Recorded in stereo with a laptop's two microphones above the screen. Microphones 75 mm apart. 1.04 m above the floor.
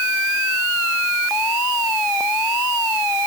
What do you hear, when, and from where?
Only background noise.